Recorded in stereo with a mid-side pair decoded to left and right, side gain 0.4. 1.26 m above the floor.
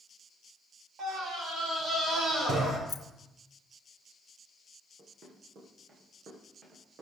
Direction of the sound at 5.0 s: 55° right.